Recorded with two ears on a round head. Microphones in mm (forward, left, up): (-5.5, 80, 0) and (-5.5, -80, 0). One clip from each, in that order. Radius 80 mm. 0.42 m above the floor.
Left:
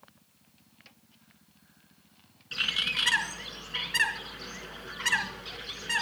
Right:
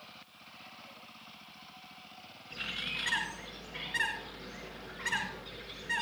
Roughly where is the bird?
Left.